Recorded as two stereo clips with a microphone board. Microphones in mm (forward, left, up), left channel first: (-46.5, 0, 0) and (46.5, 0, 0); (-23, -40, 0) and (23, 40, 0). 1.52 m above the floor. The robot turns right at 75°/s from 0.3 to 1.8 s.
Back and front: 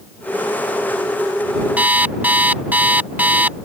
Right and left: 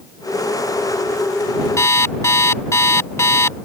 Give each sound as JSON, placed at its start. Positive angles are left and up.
{"t": 1.8, "sound": "an alarm clock", "azimuth_deg": -70}